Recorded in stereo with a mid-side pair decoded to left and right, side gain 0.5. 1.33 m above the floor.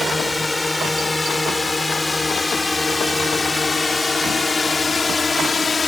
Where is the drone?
10° left; by 5.9 s 30° left.